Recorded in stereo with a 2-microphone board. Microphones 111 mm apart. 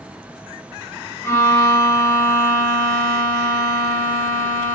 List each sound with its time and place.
1.2 s a violin: 25° left (ahead or behind), 1.6 m